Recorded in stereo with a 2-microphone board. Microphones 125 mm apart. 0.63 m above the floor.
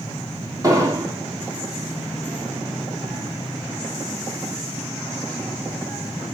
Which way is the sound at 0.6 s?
30° right (ahead or behind).